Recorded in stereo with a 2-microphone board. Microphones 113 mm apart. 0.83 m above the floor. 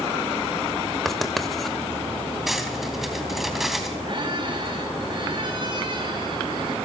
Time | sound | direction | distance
1.1 | writing | centre (ahead or behind) | 2.5 m
2.5 | cutlery clinking | centre (ahead or behind) | 3.5 m
4.1 | a squeak | 40° right (ahead or behind) | 6 m